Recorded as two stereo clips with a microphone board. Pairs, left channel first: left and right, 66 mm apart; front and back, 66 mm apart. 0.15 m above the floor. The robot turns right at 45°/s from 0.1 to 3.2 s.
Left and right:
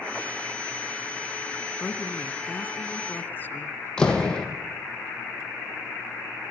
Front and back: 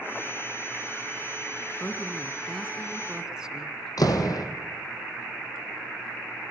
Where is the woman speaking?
50° left, 1.1 m; by 3.9 s 110° left, 1.1 m.